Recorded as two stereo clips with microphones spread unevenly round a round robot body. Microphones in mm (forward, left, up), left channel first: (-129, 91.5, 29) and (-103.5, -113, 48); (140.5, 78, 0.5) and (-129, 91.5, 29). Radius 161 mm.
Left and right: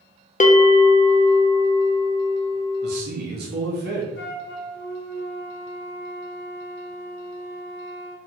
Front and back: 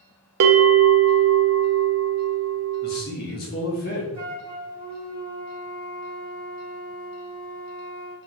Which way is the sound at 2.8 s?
50° right.